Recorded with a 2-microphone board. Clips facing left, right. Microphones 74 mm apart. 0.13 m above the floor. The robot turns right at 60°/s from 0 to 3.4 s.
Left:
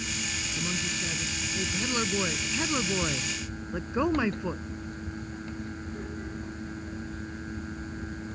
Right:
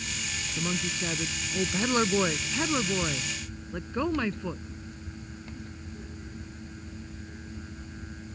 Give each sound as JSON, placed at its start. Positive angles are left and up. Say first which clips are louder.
{"t": 0.6, "sound": "a woman speaking", "louder": "right 3 dB", "azimuth_deg": -145}